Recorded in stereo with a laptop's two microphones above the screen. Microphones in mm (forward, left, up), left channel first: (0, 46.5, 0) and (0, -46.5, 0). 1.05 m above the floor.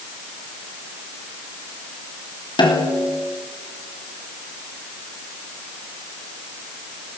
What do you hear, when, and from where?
2.6 s a snare drum: 60° left (ahead or behind), 3.5 m